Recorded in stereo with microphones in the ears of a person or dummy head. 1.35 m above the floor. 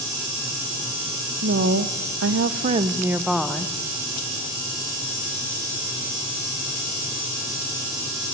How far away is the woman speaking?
About 1.3 m.